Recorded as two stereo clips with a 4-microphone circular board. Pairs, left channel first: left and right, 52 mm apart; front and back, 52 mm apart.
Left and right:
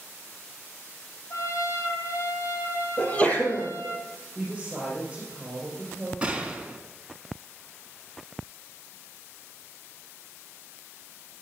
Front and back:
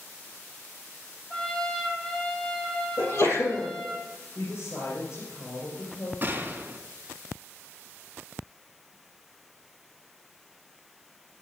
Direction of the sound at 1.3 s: 75° left.